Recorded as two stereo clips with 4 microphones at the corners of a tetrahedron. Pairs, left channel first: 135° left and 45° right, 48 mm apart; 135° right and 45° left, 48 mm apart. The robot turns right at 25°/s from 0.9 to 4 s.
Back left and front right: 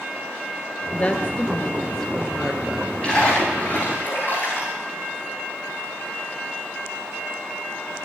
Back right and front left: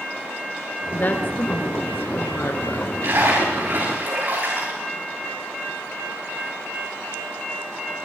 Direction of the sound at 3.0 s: 65° left.